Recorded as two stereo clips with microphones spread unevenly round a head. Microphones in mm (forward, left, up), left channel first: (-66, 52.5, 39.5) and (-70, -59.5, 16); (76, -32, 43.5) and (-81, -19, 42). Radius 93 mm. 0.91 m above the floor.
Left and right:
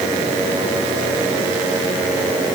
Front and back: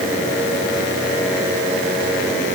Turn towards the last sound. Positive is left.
No sound to turn to.